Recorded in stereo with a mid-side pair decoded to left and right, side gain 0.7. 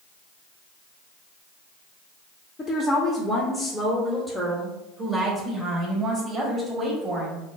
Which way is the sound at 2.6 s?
25° left.